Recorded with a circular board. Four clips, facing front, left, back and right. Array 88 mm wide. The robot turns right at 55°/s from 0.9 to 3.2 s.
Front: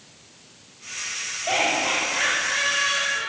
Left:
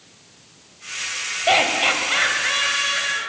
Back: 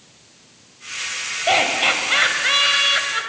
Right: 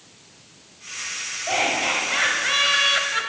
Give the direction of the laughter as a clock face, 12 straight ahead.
8 o'clock.